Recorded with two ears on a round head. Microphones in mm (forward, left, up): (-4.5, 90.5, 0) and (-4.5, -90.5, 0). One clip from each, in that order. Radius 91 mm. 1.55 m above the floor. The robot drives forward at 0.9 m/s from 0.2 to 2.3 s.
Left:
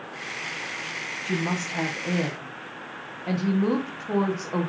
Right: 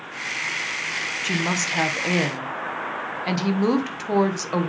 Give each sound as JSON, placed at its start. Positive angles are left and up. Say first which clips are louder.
{"t": 1.2, "sound": "a woman speaking", "louder": "right 4 dB", "side_deg": -65, "distance_m": 1.3}